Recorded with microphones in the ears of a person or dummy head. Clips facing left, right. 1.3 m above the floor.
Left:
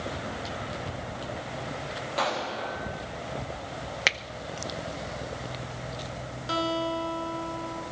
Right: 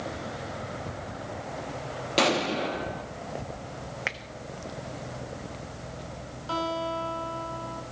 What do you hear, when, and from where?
2.2 s an explosion: 35° right (ahead or behind), 0.8 m
4.1 s a finger snap: 55° left (ahead or behind), 0.6 m
6.5 s a guitar: 20° left (ahead or behind), 4.5 m